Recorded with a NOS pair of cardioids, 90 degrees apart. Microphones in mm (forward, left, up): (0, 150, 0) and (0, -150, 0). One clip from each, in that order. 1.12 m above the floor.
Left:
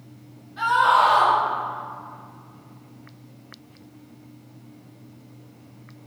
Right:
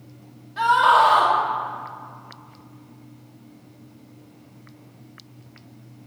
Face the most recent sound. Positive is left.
turn(degrees=-50)